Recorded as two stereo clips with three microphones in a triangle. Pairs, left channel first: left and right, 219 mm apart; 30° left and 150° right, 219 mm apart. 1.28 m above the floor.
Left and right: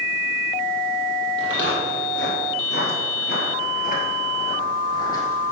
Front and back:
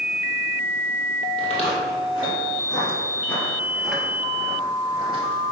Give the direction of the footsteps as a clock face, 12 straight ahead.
9 o'clock.